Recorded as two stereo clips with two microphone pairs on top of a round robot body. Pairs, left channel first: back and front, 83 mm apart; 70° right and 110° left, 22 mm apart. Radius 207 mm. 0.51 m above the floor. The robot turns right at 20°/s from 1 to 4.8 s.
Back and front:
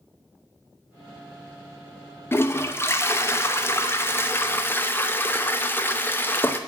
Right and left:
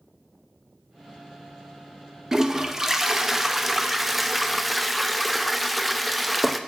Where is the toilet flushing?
165° left, 1.3 m; by 6.6 s 145° right, 1.3 m.